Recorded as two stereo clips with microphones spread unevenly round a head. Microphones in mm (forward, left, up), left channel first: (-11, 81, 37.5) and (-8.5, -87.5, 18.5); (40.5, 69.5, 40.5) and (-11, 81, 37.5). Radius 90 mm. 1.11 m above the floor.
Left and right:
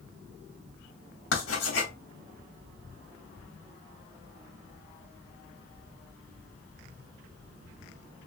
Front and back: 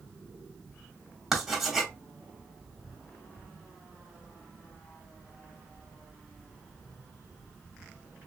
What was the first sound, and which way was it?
Writing, 85° left.